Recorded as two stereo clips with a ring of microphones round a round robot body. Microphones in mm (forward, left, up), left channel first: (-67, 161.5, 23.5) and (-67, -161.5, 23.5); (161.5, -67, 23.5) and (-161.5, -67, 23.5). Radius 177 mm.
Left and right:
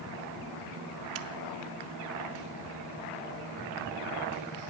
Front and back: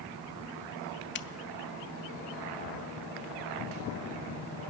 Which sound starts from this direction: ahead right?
A finger snap, at 1.1 s.